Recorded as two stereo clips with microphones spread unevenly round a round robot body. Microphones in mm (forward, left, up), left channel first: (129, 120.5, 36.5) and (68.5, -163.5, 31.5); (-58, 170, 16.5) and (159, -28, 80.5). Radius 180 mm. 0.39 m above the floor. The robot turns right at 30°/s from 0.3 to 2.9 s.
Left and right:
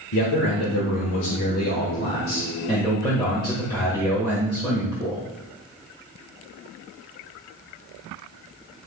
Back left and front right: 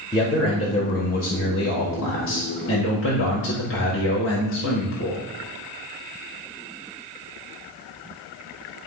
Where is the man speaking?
75° left, 1.7 m; by 5.2 s 155° left, 1.7 m.